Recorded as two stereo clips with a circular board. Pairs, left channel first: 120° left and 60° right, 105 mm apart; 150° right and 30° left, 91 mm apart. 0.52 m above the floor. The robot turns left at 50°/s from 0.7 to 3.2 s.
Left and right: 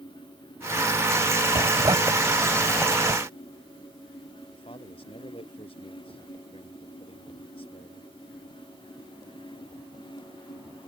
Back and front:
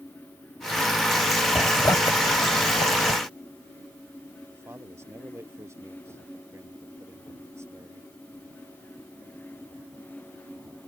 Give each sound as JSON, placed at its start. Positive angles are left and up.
{"t": 1.6, "sound": "a zipper", "azimuth_deg": -85}
{"t": 4.5, "sound": "a man speaking", "azimuth_deg": 90}